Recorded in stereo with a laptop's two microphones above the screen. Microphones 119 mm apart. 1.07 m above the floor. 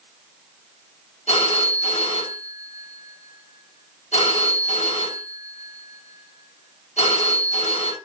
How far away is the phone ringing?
About 4.5 m.